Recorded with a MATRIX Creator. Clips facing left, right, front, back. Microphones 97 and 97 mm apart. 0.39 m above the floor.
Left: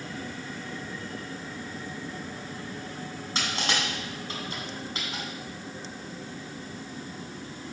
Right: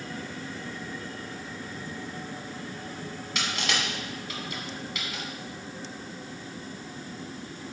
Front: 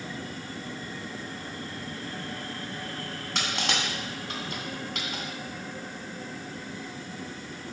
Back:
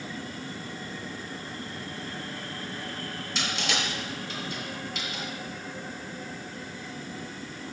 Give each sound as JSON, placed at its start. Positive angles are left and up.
{"t": 3.4, "sound": "crushing", "azimuth_deg": 35, "distance_m": 2.0}